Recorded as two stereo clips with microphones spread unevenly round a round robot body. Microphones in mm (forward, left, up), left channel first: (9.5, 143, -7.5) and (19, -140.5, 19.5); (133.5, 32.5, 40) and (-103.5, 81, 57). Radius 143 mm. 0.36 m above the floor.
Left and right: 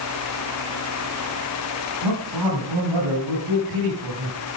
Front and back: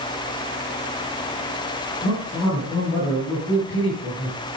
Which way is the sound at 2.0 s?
85° right.